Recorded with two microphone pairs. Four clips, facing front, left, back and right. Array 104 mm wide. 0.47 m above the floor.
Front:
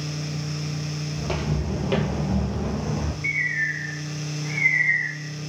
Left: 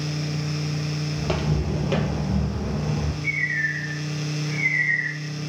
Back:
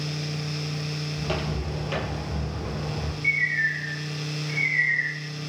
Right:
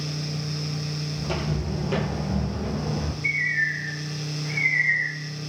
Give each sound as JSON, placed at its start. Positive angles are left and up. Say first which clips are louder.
{"t": 1.2, "sound": "footsteps", "louder": "left 3 dB, front 2 dB", "azimuth_deg": 90, "distance_m": 1.0}
{"t": 3.2, "sound": "a bird", "louder": "even, back 1 dB", "azimuth_deg": -10, "distance_m": 1.8}